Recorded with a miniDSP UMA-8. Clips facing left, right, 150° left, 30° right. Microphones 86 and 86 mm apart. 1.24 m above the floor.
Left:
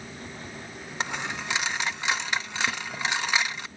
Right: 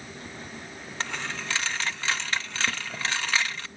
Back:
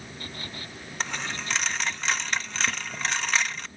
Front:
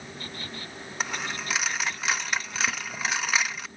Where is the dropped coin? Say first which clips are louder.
Left 2 dB, even; 45° left, 0.5 m.